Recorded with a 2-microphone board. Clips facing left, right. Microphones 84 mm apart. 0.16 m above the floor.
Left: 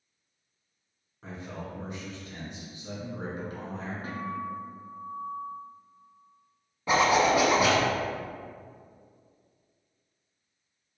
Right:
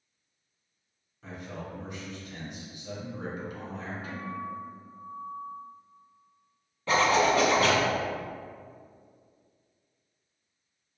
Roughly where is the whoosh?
I don't hear a whoosh.